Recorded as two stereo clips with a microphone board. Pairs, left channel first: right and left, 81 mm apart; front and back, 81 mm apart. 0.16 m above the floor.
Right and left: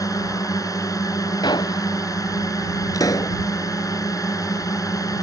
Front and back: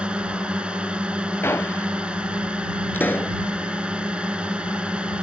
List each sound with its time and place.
0.0 s a drone: 105° right
1.4 s a gunshot: 60° right
2.9 s a pop: 60° right